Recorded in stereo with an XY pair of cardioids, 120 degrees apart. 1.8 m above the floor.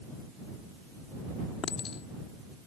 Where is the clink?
45° left.